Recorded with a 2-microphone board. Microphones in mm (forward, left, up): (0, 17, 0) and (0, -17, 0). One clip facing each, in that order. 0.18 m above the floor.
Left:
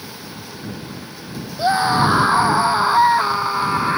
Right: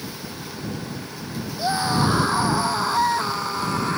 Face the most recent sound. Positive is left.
turn(degrees=25)  # may be behind; listen again after turning